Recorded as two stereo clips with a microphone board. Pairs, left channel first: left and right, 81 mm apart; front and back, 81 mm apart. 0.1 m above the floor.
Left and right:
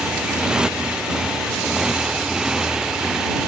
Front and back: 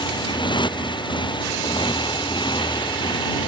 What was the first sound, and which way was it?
A motorcycle, 10° right.